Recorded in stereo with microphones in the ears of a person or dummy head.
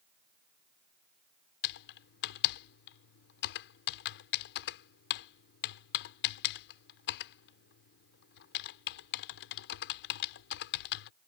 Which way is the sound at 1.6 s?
60° left (ahead or behind).